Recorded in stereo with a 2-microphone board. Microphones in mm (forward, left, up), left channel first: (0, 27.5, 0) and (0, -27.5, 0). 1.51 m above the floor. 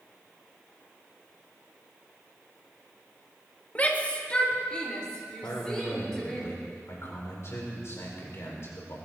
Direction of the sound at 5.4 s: 55° left (ahead or behind).